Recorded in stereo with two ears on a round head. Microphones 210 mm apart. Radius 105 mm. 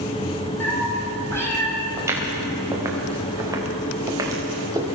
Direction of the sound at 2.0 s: 15° right (ahead or behind).